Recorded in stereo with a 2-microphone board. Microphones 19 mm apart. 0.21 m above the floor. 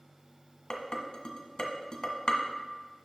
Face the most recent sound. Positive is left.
turn(degrees=40)  # may be behind; listen again after turning